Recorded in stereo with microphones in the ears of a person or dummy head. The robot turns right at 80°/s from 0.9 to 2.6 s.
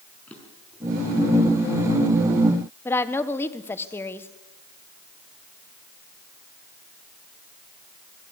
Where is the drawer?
10° left (ahead or behind), 5 m.